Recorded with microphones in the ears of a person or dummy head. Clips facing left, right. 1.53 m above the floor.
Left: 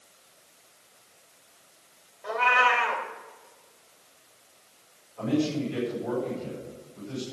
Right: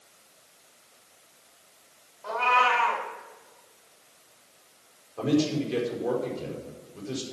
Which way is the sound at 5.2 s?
70° right (ahead or behind).